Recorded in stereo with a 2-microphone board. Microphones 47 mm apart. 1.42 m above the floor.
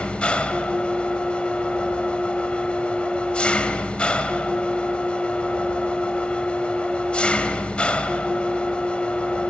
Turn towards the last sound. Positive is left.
turn(degrees=25)  # may be behind; listen again after turning